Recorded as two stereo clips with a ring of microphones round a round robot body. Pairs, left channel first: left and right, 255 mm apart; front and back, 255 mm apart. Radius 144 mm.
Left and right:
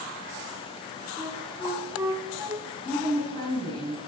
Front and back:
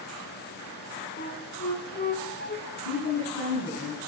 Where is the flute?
20° right, 0.7 m.